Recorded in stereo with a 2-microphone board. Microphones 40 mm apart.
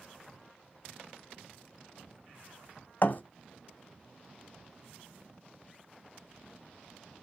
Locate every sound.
3.0 s a thud: 50° left (ahead or behind), 1.0 m